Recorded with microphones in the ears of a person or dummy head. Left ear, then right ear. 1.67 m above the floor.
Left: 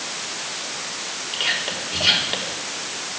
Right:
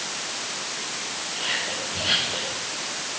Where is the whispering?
75° left (ahead or behind), 4 m.